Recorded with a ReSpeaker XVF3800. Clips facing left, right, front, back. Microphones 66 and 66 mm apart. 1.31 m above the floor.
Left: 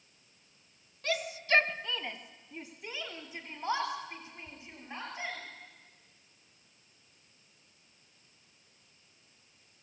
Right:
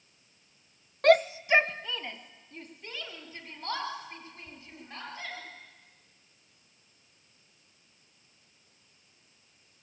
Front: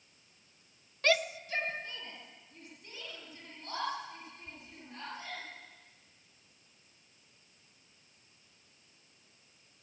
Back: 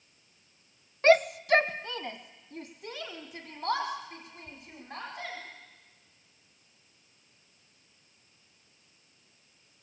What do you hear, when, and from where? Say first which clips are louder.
1.0 s a shout: right 11 dB, back 9 dB; 120° right, 0.6 m; by 5.4 s 160° left, 6.5 m